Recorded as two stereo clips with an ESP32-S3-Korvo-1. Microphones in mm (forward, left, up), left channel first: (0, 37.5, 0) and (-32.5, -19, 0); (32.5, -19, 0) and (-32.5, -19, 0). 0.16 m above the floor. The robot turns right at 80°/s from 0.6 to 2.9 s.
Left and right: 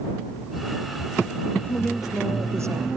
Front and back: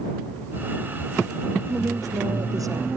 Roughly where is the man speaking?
Behind left.